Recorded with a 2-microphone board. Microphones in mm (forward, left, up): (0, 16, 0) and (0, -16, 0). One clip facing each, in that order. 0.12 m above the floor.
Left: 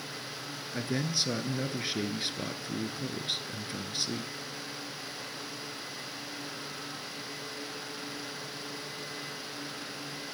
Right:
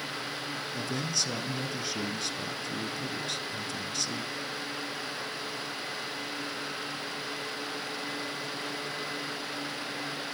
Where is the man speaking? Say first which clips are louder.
Left 2 dB; 30° left (ahead or behind), 1.3 m.